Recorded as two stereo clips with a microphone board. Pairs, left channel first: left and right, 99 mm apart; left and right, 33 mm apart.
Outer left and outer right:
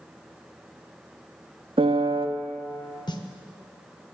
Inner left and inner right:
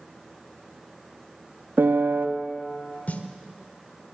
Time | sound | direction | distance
1.8 | a piano | 60° right (ahead or behind) | 0.7 m
3.1 | a snare drum | 45° left (ahead or behind) | 0.8 m